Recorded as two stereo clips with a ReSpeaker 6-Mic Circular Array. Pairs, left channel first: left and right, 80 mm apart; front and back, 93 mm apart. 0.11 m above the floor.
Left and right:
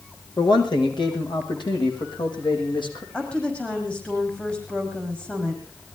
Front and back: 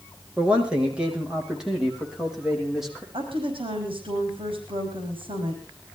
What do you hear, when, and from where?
0.4 s a man speaking: 105° left, 5.5 m; by 3.0 s 95° left, 6.5 m
3.1 s a woman speaking: 165° left, 5 m